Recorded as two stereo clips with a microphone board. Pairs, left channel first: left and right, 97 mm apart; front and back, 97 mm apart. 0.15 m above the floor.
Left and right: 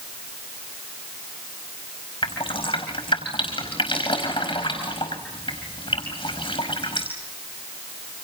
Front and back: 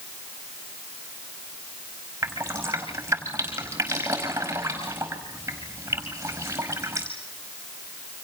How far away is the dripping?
About 5 m.